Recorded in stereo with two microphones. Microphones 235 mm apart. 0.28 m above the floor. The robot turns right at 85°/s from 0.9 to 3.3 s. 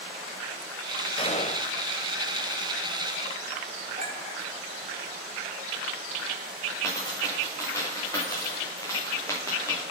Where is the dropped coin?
10° left (ahead or behind), 4.5 m.